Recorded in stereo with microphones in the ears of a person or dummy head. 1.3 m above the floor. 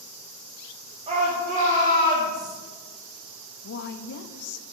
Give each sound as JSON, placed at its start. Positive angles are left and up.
{"t": 1.1, "sound": "a shout", "side_deg": -35, "distance_m": 3.0}
{"t": 3.6, "sound": "a woman speaking", "side_deg": 55, "distance_m": 0.9}